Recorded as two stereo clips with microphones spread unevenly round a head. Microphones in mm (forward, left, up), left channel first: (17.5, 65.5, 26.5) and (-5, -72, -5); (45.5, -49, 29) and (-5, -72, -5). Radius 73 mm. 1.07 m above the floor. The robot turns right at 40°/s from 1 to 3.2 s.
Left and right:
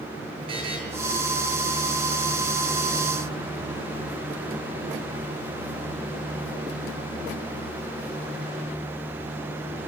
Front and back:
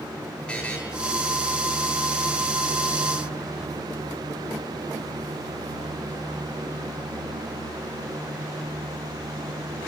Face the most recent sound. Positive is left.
turn(degrees=45)